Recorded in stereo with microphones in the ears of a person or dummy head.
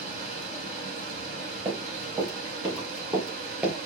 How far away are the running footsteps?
About 5 m.